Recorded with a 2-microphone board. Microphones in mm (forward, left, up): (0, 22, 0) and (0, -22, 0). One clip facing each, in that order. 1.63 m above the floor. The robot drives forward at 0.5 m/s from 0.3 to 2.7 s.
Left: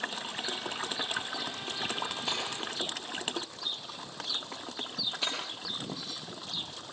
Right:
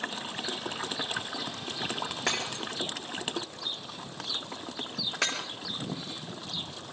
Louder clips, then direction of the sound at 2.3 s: Right 3 dB; 70° right (ahead or behind).